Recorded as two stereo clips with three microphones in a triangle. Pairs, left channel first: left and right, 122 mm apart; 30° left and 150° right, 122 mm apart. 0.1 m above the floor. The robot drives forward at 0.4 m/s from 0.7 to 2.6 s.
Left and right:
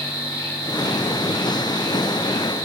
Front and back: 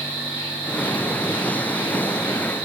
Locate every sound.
0.0 s an insect: 90° left, 1.8 m; by 2.6 s 140° left, 2.0 m